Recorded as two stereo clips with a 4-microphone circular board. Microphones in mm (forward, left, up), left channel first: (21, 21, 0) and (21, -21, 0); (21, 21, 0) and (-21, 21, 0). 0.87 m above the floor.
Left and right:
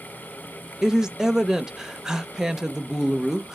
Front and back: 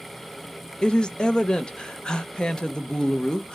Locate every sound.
0.8 s a woman speaking: 35° right, 0.6 m